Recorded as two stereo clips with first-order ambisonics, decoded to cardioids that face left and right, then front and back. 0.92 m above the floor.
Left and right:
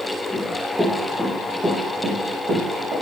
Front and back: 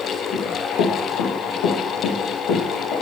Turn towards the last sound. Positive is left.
turn(degrees=-35)